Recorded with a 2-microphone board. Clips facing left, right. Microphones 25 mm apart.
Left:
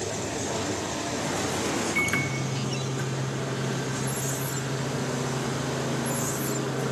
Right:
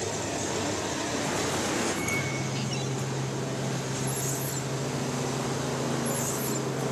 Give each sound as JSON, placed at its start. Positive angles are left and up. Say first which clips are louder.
{"t": 1.9, "sound": "a microwave", "louder": "left 4 dB", "side_deg": 65, "distance_m": 2.0}